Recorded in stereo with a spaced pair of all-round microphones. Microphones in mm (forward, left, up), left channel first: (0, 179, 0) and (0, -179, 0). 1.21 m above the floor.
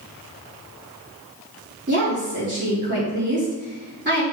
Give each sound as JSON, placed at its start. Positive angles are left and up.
{"t": 1.9, "sound": "a woman speaking", "side_deg": -30, "distance_m": 3.0}